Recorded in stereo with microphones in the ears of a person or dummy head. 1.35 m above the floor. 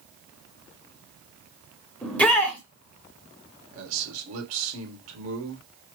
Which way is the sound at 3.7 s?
80° right.